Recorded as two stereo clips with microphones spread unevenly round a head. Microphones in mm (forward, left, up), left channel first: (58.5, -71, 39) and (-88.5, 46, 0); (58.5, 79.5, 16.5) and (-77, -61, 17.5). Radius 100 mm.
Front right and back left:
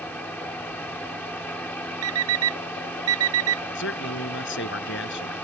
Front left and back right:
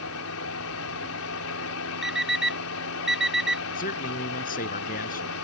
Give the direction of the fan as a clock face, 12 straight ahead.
11 o'clock.